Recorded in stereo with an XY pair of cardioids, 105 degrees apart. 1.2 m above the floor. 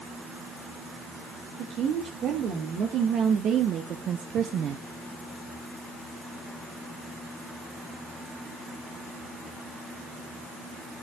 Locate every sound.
1.6 s a woman speaking: 65° right, 2.5 m; by 4.8 s 75° right, 0.6 m